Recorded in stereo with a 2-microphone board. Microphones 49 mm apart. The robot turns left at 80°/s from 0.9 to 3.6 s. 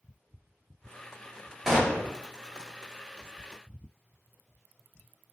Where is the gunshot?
170° right, 0.9 m; by 2.1 s 150° left, 0.9 m.